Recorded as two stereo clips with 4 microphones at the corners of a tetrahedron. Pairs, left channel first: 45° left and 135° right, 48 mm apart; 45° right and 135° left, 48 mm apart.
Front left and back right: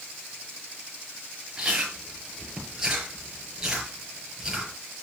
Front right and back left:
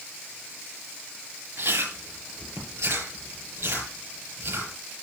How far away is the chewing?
About 7 m.